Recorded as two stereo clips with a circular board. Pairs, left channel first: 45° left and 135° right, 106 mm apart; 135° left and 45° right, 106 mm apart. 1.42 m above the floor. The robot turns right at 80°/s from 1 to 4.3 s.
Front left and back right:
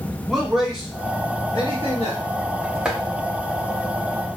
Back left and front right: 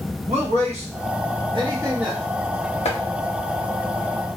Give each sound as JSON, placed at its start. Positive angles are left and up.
{"t": 0.3, "sound": "a man speaking", "azimuth_deg": -50, "distance_m": 1.2}
{"t": 2.9, "sound": "chopping", "azimuth_deg": 140, "distance_m": 0.7}